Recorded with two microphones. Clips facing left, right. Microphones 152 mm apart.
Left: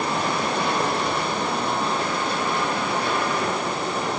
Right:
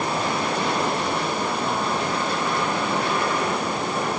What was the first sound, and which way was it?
Only background noise.